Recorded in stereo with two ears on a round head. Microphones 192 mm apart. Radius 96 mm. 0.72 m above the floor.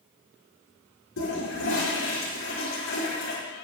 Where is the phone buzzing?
I don't hear a phone buzzing.